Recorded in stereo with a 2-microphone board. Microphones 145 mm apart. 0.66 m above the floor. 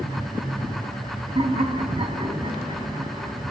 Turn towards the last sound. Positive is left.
turn(degrees=-35)  # may be behind; listen again after turning